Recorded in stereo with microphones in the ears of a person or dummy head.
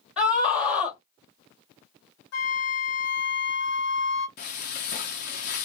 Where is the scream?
5° right (ahead or behind), 3 m.